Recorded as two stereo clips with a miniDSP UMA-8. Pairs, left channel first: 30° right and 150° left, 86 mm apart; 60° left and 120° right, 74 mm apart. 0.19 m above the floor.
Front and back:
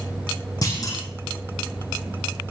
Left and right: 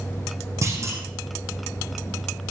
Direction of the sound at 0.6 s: 75° right.